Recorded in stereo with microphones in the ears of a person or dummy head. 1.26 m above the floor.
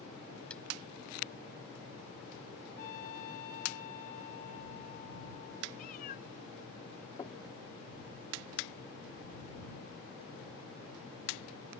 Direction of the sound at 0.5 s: 10° left (ahead or behind).